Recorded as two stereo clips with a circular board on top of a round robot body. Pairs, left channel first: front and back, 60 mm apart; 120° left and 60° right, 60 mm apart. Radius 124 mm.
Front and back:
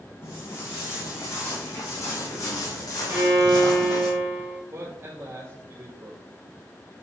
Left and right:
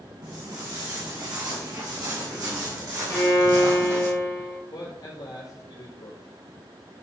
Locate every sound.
0.2 s footsteps: 55° right, 3.5 m; by 4.1 s 20° right, 2 m
3.1 s a violin: 160° left, 2.5 m
4.7 s a man speaking: 135° left, 3 m